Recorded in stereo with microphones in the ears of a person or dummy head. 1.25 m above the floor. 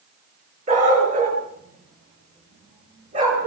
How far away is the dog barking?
About 7.5 m.